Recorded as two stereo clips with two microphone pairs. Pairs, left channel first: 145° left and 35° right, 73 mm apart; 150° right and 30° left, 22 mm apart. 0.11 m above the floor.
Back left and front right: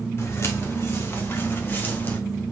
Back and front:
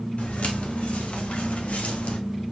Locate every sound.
0.2 s footsteps: 165° right, 3.5 m; by 2.2 s 155° right, 2 m